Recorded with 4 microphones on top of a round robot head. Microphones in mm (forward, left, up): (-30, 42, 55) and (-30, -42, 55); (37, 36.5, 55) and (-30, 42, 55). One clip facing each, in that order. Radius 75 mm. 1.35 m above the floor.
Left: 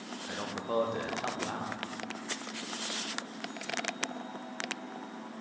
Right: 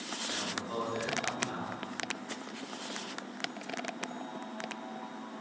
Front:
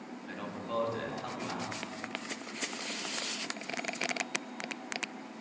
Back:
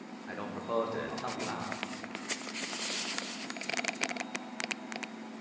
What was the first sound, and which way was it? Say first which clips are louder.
A man speaking: left 4 dB, back 3 dB; 115° left.